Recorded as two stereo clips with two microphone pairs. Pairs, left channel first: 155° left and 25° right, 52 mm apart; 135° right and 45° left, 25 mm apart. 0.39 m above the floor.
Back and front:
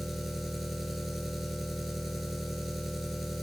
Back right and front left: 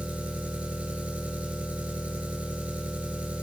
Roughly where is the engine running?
Ahead left.